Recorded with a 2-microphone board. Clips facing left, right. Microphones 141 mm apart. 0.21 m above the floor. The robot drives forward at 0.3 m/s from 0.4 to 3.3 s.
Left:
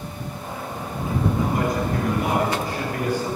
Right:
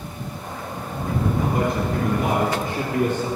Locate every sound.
1.4 s a man speaking: 50° right (ahead or behind), 3 m; by 3.3 s 45° right (ahead or behind), 3.5 m